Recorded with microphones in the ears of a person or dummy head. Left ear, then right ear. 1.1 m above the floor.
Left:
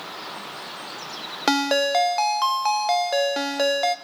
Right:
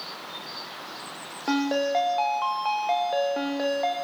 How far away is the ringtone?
About 0.6 m.